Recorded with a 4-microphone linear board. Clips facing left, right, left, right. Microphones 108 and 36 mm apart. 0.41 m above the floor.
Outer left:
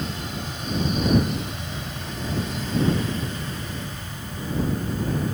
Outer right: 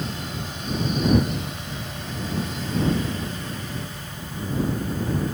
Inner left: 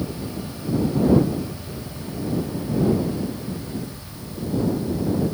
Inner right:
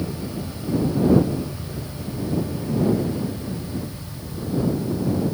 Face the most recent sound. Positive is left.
No sound to turn to.